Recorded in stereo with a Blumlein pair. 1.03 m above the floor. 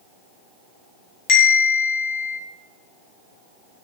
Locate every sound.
1.3 s a bell: 40° left, 0.6 m